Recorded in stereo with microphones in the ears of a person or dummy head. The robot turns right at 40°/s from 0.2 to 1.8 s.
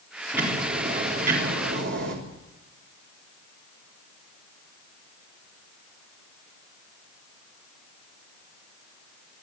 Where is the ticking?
175° right, 4 m; by 2.1 s 115° right, 4 m.